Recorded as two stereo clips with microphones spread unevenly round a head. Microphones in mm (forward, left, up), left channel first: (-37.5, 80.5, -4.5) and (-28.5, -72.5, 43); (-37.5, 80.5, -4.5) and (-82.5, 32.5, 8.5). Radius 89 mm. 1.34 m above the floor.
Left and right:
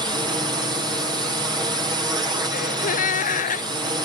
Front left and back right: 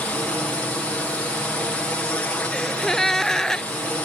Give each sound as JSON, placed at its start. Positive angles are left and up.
{"t": 0.0, "sound": "a drone", "azimuth_deg": -15}
{"t": 2.5, "sound": "a gasp", "azimuth_deg": 130}